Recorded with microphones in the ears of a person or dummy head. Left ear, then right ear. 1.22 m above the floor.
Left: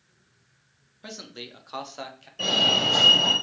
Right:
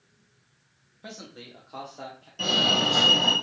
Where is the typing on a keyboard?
I don't hear typing on a keyboard.